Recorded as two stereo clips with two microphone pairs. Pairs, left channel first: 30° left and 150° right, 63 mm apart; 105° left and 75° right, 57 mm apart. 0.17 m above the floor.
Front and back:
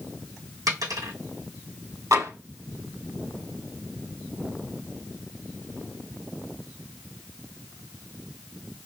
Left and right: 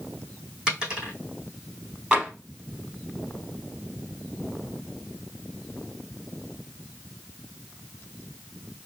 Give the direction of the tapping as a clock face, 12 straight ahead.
5 o'clock.